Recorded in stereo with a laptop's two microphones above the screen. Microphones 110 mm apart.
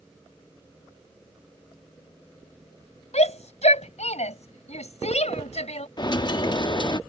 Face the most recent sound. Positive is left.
turn(degrees=40)  # may be behind; listen again after turning